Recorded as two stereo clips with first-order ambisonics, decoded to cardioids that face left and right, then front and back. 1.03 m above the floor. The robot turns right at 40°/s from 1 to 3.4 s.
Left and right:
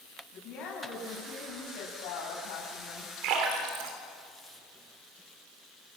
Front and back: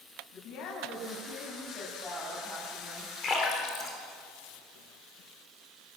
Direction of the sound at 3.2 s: 70° right.